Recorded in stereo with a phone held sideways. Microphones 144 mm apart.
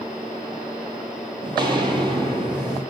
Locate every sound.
1.4 s footsteps: 30° right (ahead or behind), 1.1 m; by 2.8 s 25° right (ahead or behind), 1.5 m